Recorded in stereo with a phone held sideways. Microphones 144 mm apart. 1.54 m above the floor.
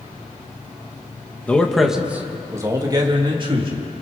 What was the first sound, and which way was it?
A man speaking, 10° left (ahead or behind).